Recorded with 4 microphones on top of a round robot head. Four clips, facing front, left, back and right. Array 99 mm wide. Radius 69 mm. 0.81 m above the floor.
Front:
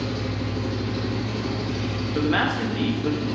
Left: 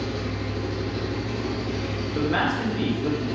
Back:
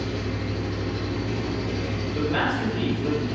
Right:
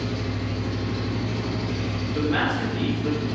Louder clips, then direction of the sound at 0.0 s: Even, front 1 dB; 15° left.